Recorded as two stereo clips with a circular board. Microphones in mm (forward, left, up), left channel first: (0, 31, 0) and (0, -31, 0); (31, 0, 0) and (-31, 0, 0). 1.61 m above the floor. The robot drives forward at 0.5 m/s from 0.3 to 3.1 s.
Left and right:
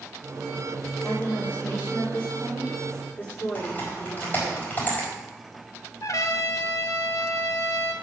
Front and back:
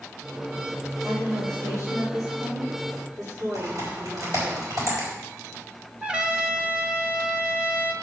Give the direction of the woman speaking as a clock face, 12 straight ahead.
7 o'clock.